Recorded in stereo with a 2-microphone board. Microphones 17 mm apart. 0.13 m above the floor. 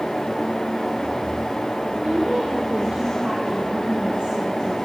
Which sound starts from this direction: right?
A woman speaking, at 2.0 s.